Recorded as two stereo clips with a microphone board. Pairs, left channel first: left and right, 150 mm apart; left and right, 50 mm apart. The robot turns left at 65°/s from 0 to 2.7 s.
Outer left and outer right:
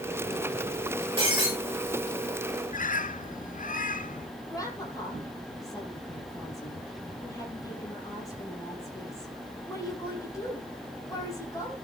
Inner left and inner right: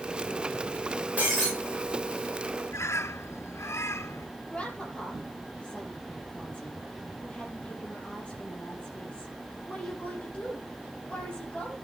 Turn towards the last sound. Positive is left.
turn(degrees=20)  # may be behind; listen again after turning